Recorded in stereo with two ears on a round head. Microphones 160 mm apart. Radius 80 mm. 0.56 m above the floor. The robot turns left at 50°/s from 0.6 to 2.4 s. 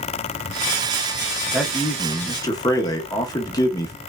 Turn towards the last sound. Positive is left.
turn(degrees=140)